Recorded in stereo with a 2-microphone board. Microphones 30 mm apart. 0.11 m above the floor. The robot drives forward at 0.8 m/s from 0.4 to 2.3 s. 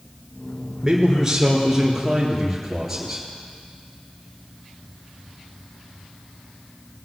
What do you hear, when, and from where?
0.8 s a man speaking: 20° right (ahead or behind), 1.9 m; by 3.2 s 15° right (ahead or behind), 2.5 m